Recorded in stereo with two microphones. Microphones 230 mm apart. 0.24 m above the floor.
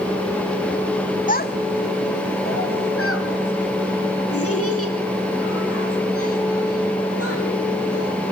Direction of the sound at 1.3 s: 35° left (ahead or behind).